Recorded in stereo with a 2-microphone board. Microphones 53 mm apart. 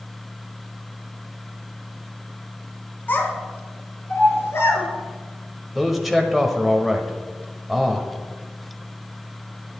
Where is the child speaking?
35° left (ahead or behind), 2 m; by 4.8 s 60° left (ahead or behind), 4 m.